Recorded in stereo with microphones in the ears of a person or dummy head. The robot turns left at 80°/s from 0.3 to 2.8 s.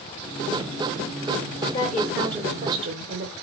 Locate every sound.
1.7 s a woman speaking: 25° left, 1.4 m; by 3.3 s 60° right, 1.4 m